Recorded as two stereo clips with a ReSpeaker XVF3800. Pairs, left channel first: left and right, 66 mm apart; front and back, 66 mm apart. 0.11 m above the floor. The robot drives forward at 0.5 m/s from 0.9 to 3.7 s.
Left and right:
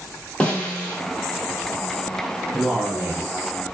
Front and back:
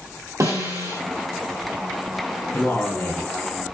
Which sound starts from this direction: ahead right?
A man speaking, at 2.5 s.